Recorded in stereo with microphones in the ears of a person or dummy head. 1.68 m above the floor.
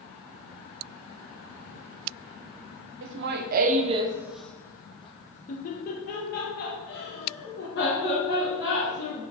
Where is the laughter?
60° right (ahead or behind), 0.8 m; by 9.2 s 65° left (ahead or behind), 2.5 m.